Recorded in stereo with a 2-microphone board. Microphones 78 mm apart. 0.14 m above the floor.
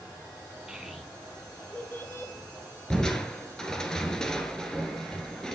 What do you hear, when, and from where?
0.7 s a child speaking: 10° right (ahead or behind), 3 m; by 2.3 s 35° left (ahead or behind), 2.5 m
2.9 s crushing: 10° left (ahead or behind), 1.6 m